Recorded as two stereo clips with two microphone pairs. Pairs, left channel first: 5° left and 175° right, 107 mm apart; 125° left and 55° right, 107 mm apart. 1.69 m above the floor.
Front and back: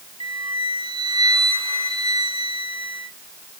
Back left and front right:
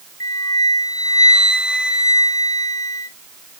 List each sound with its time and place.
0.2 s a flute: 175° left, 2 m